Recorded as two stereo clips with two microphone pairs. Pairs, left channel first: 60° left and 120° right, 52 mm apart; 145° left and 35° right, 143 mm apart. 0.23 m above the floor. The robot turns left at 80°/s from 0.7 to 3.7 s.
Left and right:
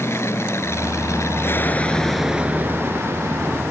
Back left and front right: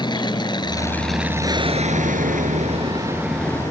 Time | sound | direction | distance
0.0 | an aircraft | 85° left | ?